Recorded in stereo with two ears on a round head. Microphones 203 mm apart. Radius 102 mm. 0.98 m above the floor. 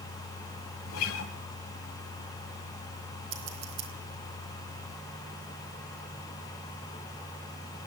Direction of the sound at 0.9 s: 70° left (ahead or behind).